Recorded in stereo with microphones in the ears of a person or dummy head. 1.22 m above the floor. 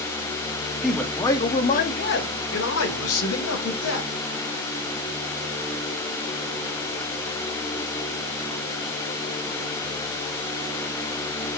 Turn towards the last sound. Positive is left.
turn(degrees=75)  # may be behind; listen again after turning